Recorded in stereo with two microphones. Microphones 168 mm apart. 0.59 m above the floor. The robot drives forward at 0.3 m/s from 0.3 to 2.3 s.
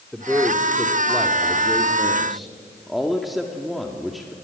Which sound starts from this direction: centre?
A man speaking, at 0.1 s.